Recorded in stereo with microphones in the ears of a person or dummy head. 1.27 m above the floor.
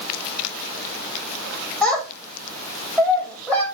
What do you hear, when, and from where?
1.8 s a child speaking: 5° left (ahead or behind), 1.4 m